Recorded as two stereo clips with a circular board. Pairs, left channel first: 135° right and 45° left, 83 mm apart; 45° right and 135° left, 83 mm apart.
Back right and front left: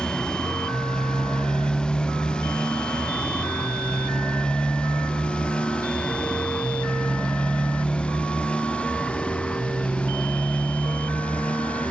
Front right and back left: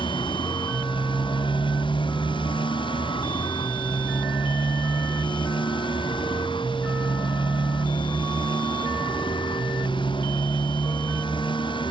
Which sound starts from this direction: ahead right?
A motorcycle, at 0.0 s.